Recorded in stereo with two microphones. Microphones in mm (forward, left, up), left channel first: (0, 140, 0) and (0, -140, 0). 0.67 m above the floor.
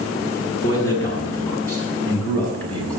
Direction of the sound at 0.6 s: 10° left (ahead or behind).